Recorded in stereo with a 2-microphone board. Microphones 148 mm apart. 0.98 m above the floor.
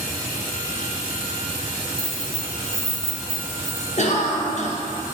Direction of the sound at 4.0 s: 50° left (ahead or behind).